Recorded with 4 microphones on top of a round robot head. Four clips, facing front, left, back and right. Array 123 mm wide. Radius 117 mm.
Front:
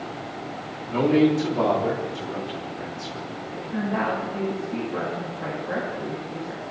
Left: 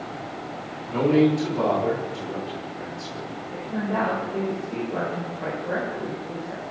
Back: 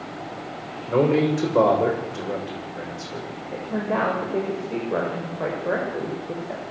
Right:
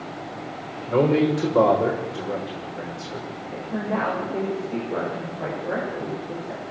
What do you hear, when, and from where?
0.9 s a man speaking: 140° right, 7 m
3.5 s a woman speaking: straight behind, 8 m